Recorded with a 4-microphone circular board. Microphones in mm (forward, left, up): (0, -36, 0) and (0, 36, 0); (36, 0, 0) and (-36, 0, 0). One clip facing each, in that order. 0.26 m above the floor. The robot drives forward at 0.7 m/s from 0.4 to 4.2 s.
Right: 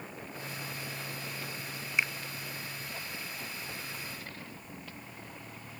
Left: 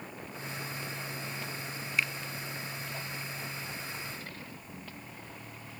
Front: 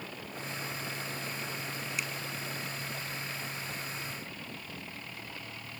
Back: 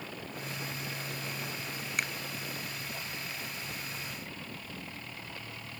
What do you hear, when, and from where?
2.0 s a finger snap: 155° right